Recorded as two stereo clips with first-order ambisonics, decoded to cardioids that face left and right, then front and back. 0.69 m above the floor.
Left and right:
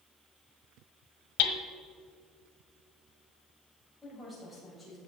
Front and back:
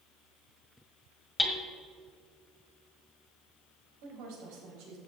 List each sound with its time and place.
1.4 s hammering: 80° left, 1.5 m
4.0 s a woman speaking: straight behind, 3.5 m